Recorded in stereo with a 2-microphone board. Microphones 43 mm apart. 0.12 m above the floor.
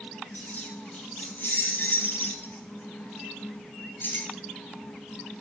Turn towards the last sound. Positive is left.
turn(degrees=35)  # may be behind; listen again after turning